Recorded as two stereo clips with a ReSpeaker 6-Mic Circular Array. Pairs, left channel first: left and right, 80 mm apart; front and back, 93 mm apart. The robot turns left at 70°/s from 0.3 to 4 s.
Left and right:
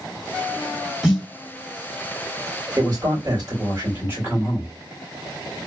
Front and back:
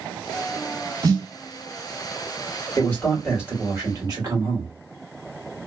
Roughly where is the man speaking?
Ahead right.